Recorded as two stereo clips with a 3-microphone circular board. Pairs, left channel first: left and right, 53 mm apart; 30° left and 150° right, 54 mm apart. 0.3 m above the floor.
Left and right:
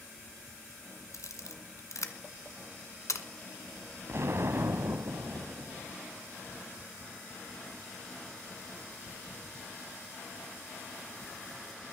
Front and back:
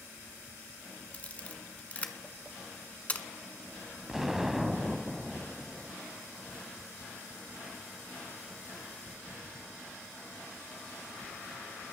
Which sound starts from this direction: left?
A camera shutter, at 1.1 s.